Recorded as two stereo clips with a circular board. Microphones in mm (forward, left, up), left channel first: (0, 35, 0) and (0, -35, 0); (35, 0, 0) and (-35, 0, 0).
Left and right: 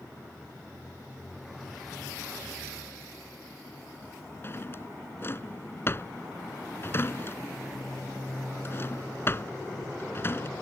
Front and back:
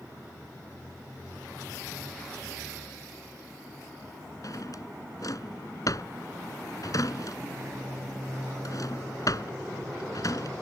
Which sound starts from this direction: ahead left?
A drawer, at 4.4 s.